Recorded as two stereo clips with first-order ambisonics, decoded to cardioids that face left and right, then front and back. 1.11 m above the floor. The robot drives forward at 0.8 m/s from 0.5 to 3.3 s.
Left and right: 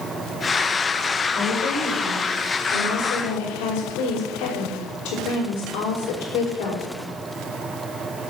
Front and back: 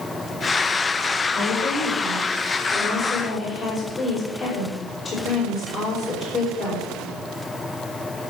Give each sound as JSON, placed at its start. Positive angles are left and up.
{"t": 1.4, "sound": "a woman speaking", "azimuth_deg": 50, "distance_m": 6.0}